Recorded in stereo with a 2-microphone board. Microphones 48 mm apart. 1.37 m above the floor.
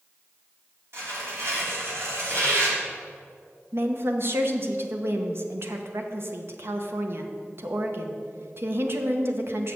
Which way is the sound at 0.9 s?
65° right (ahead or behind).